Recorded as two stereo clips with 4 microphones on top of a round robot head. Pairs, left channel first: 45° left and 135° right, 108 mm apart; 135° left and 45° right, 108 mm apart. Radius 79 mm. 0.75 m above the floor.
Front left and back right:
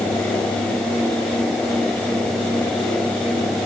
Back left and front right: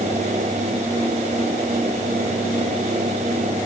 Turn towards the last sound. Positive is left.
No sound to turn to.